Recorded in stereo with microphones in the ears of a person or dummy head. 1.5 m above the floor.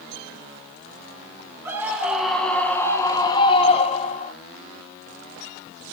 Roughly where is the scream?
Centre.